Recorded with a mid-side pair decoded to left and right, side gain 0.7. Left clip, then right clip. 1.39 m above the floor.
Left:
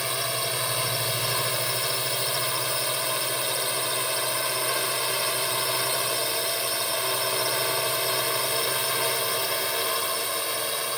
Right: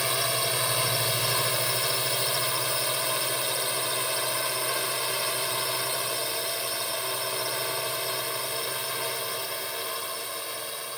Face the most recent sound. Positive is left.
turn(degrees=35)